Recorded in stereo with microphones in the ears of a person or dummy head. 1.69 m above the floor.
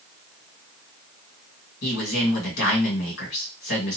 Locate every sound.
1.8 s a man speaking: 70° left (ahead or behind), 1.9 m